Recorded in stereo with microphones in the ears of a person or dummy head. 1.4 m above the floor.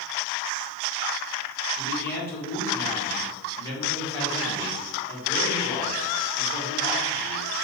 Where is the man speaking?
15° left (ahead or behind), 1.5 m.